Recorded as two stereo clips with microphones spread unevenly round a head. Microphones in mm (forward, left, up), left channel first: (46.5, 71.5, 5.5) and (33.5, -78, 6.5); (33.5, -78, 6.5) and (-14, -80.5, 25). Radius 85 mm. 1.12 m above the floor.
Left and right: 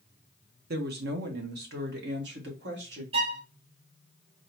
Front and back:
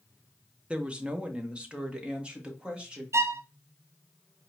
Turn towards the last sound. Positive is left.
turn(degrees=-145)